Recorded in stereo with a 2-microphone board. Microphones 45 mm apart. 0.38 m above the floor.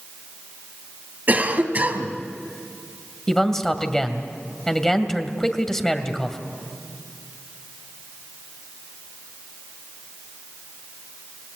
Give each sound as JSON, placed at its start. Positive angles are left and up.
{"t": 1.3, "sound": "a cough", "side_deg": -40, "distance_m": 2.5}
{"t": 3.3, "sound": "a man speaking", "side_deg": 10, "distance_m": 2.0}